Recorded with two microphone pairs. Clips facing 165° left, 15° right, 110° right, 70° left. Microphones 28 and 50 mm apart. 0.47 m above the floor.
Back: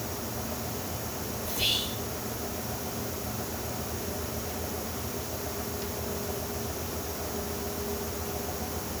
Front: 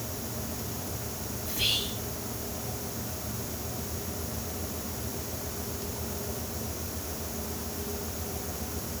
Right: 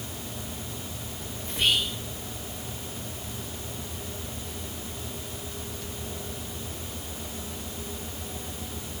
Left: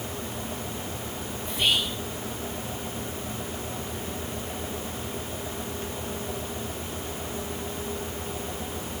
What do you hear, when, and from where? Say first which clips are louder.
1.4 s whispering: even, even; 115° right, 2.5 m